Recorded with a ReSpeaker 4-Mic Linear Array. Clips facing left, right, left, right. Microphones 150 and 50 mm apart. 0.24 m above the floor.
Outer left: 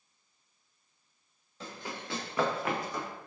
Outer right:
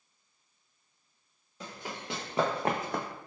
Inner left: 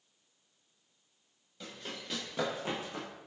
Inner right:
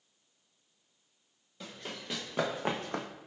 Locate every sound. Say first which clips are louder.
1.6 s running footsteps: even, inner right 1 dB; 10° right (ahead or behind), 1.9 m; by 3.1 s 70° right (ahead or behind), 0.6 m